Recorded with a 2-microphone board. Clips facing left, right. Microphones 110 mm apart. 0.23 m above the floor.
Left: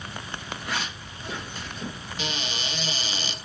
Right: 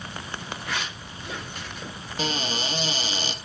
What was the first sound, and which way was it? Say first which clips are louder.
A zipper: left 1 dB; 30° left (ahead or behind).